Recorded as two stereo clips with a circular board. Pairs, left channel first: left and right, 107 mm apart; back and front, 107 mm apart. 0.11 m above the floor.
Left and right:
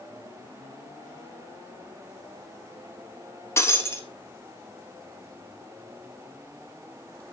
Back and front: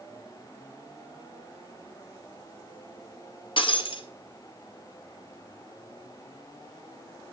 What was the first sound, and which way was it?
Breaking glass, 155° left.